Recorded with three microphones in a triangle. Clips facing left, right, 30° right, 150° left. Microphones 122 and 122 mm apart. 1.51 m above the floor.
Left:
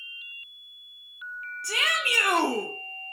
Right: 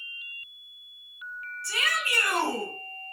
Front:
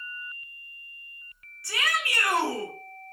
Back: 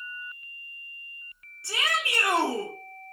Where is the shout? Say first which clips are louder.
Left 1 dB, even; 85° left, 0.6 m.